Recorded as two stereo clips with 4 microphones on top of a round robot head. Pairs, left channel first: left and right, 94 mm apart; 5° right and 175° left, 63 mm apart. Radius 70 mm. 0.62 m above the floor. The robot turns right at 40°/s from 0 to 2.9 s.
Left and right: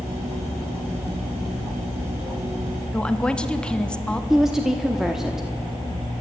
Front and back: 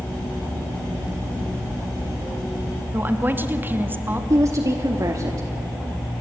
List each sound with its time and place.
2.9 s a woman speaking: 160° left, 1.3 m
4.3 s a woman speaking: 175° right, 1.1 m